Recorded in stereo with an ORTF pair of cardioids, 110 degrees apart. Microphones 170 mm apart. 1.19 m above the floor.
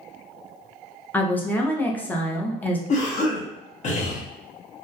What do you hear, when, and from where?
1.1 s a woman speaking: 10° left, 0.6 m
2.9 s a cough: 45° left, 0.9 m